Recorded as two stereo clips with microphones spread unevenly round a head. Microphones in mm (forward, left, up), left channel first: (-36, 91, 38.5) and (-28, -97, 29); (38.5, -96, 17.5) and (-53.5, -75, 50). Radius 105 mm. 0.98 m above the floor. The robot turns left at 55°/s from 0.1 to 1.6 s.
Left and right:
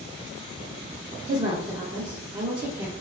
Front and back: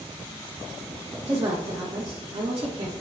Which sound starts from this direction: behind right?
A woman speaking, at 1.2 s.